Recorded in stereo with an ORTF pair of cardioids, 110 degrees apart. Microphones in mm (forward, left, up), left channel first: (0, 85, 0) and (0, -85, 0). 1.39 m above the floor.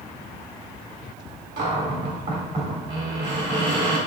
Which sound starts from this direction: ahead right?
A cupboard door, at 1.6 s.